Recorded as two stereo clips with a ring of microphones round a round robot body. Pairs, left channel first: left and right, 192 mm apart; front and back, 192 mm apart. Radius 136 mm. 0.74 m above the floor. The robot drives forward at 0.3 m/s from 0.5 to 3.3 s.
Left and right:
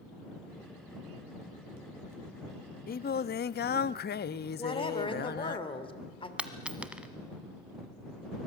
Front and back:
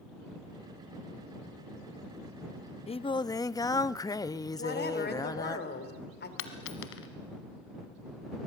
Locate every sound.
2.9 s singing: 55° left, 0.6 m; by 5.6 s 70° left, 0.5 m
4.6 s a woman speaking: 30° left, 3 m
6.4 s a dropped coin: 5° right, 1.5 m